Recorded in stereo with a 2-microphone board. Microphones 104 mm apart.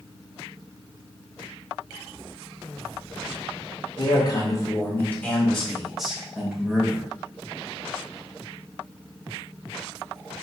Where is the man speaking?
45° left (ahead or behind), 1.0 m; by 7.0 s 15° right (ahead or behind), 1.8 m.